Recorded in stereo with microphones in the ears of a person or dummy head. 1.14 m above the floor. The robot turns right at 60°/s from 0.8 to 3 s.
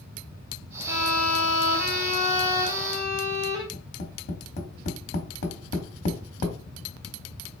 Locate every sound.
0.9 s a violin: 60° left, 1.9 m; by 3.6 s 175° right, 1.9 m
3.7 s tapping: 50° left (ahead or behind), 1.0 m